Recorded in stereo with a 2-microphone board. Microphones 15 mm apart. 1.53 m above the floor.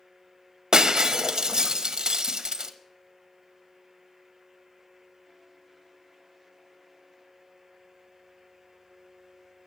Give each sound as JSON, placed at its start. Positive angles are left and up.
{"t": 0.7, "sound": "breaking glass", "side_deg": -45, "distance_m": 1.0}